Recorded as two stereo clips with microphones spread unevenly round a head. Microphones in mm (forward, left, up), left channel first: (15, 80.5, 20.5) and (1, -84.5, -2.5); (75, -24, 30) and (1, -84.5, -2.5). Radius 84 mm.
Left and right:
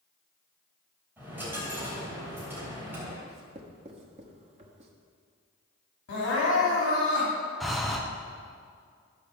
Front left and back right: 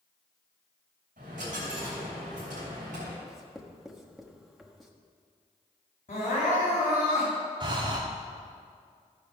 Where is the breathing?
Straight behind, 0.9 m.